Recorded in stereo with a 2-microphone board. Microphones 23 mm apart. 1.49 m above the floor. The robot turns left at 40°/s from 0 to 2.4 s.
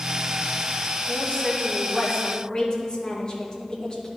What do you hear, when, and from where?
1.1 s a woman speaking: 85° left, 2 m; by 4.1 s 30° left, 2 m